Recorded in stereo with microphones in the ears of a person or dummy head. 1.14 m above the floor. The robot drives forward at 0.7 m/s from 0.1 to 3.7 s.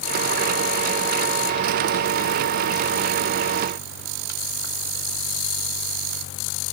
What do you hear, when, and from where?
Only background noise.